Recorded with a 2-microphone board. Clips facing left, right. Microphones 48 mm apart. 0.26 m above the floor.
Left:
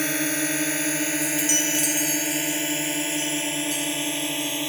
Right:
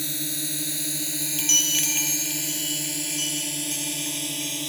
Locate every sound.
0.0 s a drone: 65° left (ahead or behind); by 4.7 s 35° left (ahead or behind)
1.2 s a chime: 50° right (ahead or behind)